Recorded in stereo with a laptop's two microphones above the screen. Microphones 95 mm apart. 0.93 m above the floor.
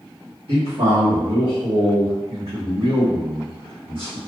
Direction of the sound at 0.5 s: 70° right (ahead or behind).